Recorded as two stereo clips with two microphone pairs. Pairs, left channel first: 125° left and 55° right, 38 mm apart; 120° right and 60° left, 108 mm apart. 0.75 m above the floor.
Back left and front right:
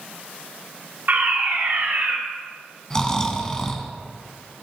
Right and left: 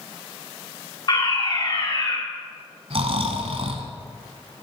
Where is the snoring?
55° left, 1.2 m.